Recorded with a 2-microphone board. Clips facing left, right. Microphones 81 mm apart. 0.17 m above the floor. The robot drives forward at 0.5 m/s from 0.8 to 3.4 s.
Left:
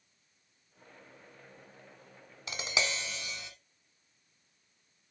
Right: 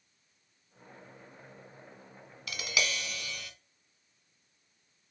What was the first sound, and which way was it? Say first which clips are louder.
Tapping: even; 30° left (ahead or behind).